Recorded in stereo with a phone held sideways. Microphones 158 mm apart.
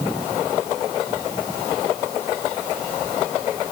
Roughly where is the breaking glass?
No breaking glass in this recording.